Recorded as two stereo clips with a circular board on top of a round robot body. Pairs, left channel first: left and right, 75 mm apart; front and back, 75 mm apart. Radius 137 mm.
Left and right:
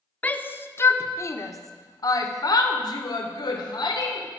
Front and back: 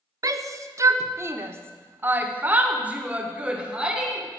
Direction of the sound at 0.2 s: 155° left.